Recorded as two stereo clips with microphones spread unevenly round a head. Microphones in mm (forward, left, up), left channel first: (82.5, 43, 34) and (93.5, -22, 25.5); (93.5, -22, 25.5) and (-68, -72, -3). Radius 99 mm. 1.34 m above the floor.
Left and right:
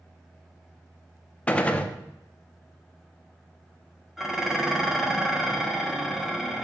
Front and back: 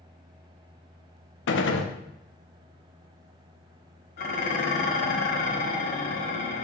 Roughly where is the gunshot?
Ahead left.